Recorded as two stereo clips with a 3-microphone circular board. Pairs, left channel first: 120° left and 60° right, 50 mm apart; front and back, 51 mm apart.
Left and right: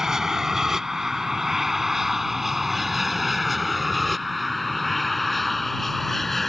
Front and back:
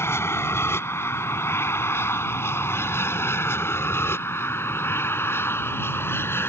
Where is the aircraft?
20° left; by 6.5 s 35° left.